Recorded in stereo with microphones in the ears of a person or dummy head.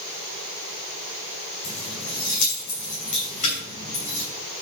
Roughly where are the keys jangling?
Left.